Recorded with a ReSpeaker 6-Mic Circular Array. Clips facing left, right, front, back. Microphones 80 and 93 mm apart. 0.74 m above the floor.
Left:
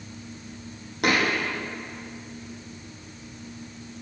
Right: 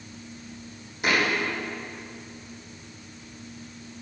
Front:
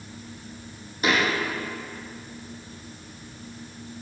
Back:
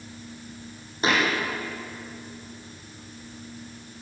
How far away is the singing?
I don't hear singing.